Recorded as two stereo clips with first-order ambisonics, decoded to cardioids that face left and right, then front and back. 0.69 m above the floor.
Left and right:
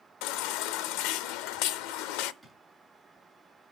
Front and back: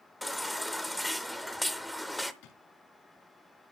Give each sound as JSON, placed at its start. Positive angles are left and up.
{"t": 0.2, "sound": "a baby crying", "azimuth_deg": 90, "distance_m": 0.6}
{"t": 2.4, "sound": "a drawer", "azimuth_deg": 5, "distance_m": 3.0}